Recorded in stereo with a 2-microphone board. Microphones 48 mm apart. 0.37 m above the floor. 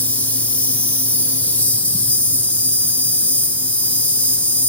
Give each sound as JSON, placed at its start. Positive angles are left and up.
{"t": 0.0, "sound": "an insect", "side_deg": 25, "distance_m": 1.6}